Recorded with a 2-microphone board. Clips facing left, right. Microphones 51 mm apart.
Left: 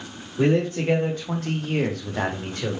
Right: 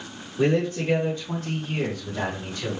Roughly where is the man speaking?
Left.